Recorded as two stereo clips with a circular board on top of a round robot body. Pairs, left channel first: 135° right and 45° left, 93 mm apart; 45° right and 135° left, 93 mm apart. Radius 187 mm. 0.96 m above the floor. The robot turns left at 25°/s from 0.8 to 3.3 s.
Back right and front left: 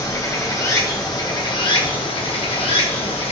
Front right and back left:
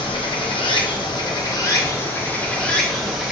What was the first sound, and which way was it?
Running water, 80° right.